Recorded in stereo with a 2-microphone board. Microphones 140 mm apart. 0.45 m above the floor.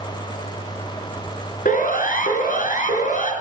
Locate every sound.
1.6 s a siren: 80° left, 5.5 m; by 3.3 s 65° left (ahead or behind), 6 m